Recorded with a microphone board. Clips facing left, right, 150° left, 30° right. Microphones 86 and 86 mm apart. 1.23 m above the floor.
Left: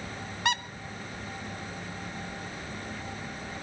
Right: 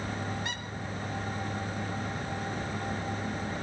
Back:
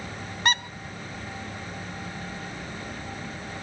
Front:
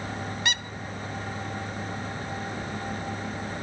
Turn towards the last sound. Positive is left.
turn(degrees=100)